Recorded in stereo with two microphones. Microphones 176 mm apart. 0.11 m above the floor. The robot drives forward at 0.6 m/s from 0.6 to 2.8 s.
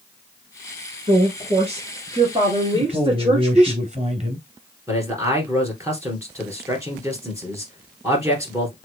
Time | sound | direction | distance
1.1 | a woman speaking | 35° right (ahead or behind) | 1.9 m
2.7 | a man speaking | 40° right (ahead or behind) | 1.4 m
4.9 | a man speaking | 15° right (ahead or behind) | 2.5 m